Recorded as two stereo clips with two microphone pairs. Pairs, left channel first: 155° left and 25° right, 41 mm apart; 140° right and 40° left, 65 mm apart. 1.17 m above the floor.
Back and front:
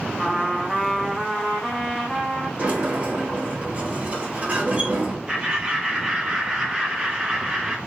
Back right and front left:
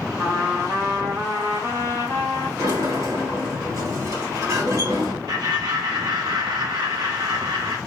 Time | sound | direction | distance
0.2 | a trumpet | 70° left | 1.2 m
2.6 | a sliding door | 25° left | 1.3 m
5.3 | laughter | 60° left | 0.6 m